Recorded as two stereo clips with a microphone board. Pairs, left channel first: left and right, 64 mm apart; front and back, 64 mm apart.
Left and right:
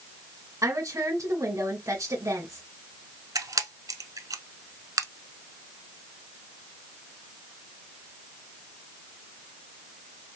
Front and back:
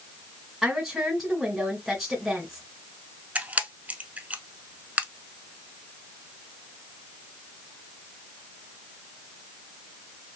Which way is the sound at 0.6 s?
95° right.